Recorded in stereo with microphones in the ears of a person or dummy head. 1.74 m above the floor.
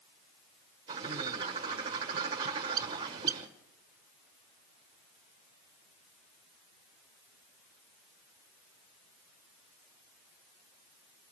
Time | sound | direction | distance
0.9 | a bird | 25° right (ahead or behind) | 1.3 m